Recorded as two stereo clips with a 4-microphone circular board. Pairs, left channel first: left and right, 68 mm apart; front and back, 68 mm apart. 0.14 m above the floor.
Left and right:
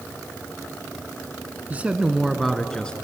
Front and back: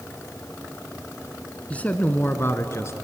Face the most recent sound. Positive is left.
turn(degrees=20)